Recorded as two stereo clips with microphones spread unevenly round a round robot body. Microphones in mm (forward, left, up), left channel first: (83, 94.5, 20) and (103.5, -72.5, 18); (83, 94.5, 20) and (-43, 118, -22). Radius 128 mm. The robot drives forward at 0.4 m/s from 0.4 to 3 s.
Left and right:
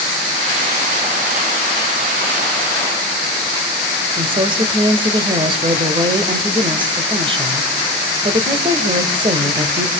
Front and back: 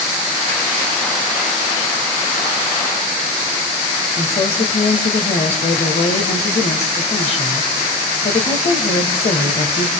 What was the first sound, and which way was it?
A woman speaking, 55° right.